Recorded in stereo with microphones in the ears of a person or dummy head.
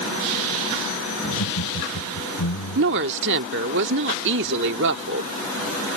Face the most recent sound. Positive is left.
turn(degrees=-60)  # may be behind; listen again after turning